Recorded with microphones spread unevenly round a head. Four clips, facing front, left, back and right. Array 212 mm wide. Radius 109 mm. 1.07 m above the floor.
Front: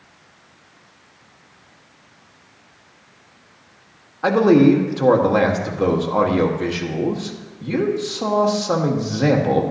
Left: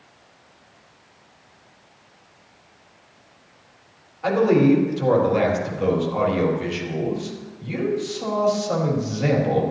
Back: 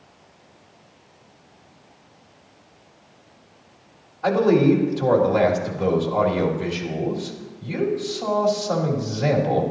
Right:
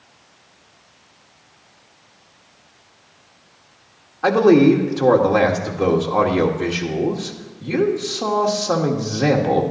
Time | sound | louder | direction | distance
4.2 | a man speaking | right 5 dB, front 4 dB | 45° right | 1.8 m